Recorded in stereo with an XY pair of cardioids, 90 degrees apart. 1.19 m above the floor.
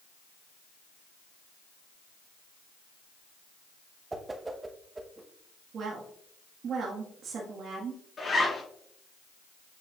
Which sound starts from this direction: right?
A woman speaking, at 5.7 s.